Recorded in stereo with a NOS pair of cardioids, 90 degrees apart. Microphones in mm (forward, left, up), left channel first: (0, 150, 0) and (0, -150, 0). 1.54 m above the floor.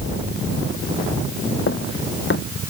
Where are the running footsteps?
40° left.